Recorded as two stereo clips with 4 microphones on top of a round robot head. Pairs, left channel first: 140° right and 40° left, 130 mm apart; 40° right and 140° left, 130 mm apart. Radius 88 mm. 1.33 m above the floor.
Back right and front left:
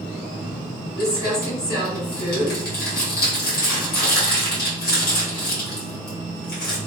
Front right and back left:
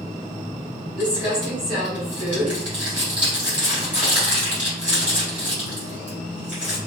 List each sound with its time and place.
1.0 s crumpling: 140° right, 1.8 m